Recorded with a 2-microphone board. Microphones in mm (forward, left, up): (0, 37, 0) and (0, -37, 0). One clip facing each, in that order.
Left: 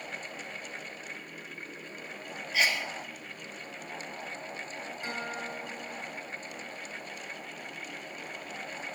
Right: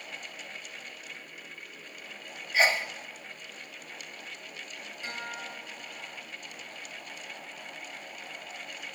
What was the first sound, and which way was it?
A sneeze, 35° right (ahead or behind).